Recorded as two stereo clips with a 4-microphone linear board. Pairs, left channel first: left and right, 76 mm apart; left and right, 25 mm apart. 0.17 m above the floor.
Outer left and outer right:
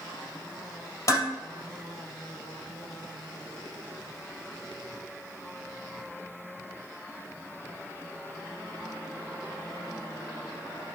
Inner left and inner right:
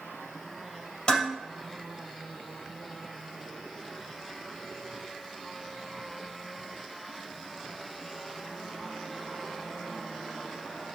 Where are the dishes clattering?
40° left (ahead or behind), 2.5 m.